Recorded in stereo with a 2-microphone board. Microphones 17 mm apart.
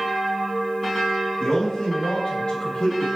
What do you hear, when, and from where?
1.4 s a man speaking: 70° left (ahead or behind), 4 m; by 3.1 s 60° left (ahead or behind), 4 m